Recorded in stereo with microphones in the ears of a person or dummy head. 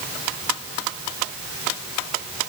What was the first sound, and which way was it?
Only background noise.